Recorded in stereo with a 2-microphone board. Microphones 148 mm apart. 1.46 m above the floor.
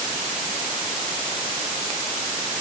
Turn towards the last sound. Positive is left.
No sound to turn to.